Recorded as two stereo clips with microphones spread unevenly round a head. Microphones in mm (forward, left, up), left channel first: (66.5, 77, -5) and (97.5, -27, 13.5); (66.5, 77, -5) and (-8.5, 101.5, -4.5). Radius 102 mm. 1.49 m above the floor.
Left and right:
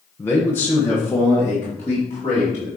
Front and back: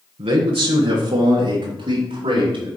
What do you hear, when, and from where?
0.2 s a man speaking: 175° right, 1.0 m